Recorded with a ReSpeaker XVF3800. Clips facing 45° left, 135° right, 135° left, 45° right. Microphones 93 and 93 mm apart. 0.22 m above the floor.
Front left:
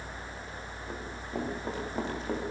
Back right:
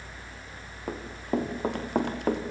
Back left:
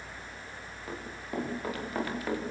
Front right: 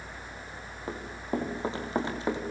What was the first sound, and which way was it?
Running footsteps, 105° right.